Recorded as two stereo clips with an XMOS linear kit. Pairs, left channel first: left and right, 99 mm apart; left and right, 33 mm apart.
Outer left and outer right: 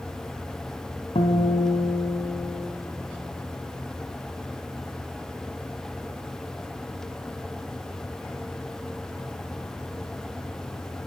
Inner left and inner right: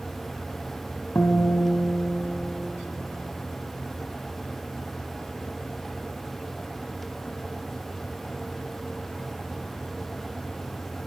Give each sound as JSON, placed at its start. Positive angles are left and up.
{"t": 1.1, "sound": "a guitar", "side_deg": 80, "distance_m": 1.9}